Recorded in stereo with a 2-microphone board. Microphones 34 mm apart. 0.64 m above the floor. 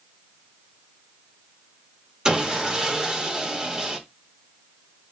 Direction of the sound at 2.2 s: 20° right (ahead or behind).